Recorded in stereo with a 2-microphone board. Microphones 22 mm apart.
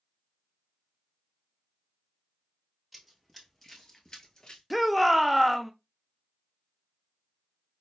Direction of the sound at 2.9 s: Centre (ahead or behind).